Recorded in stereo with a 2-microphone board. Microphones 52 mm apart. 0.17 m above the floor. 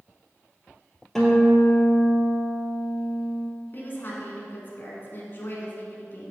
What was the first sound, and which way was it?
A guitar, 10° left (ahead or behind).